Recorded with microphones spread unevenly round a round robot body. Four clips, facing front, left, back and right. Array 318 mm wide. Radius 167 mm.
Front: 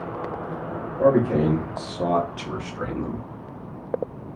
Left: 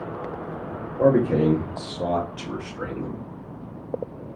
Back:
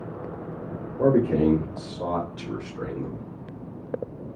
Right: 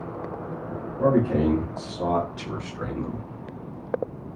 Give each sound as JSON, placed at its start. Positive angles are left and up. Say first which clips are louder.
{"t": 1.0, "sound": "a man speaking", "louder": "left 2 dB, front 1 dB", "azimuth_deg": 120, "distance_m": 0.9}